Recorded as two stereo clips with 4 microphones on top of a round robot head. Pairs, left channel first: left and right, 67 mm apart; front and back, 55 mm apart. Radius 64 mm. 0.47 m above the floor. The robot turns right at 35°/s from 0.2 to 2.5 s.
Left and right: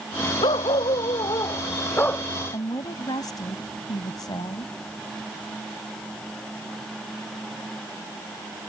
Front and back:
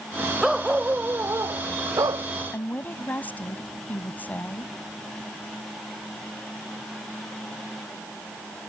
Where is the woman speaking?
60° left.